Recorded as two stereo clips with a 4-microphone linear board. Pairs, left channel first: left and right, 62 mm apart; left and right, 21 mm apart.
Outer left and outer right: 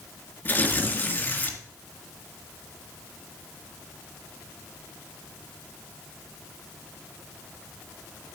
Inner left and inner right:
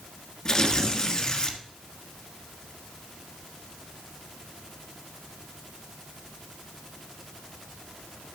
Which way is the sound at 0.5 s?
30° left (ahead or behind).